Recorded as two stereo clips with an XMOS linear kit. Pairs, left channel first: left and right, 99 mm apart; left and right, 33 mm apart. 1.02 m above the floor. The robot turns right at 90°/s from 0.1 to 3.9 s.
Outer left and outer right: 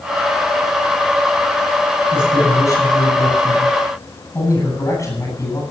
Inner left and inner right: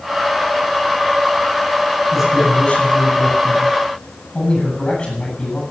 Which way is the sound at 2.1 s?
10° right.